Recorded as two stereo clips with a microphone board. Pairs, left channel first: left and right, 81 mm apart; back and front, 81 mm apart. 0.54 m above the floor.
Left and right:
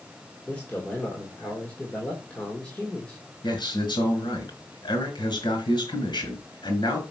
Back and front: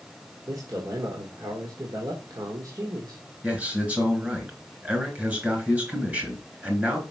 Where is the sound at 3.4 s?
70° left, 4 m.